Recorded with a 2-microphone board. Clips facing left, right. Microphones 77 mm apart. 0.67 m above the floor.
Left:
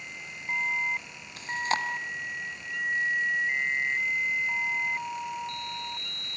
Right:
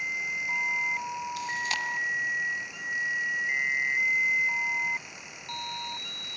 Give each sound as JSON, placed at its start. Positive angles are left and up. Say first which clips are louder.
{"t": 1.4, "sound": "chewing", "louder": "left 7 dB", "side_deg": 35, "distance_m": 1.7}